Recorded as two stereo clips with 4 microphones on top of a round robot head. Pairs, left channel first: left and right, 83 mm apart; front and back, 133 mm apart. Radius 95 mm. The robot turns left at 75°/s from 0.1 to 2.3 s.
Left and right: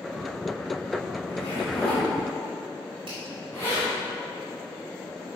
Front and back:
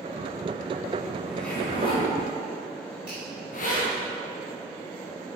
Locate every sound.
1.2 s a zipper: 95° left, 2.5 m; by 3.9 s 15° left, 2.5 m
3.1 s a finger snap: 95° right, 2.5 m